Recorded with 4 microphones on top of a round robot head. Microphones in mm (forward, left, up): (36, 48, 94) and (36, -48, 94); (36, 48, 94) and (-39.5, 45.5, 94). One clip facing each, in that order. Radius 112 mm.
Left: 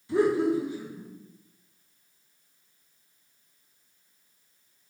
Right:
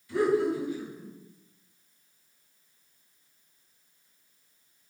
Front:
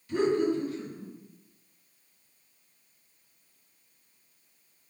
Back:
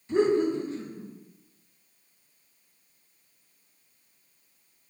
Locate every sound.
0.1 s laughter: 135° left, 1.1 m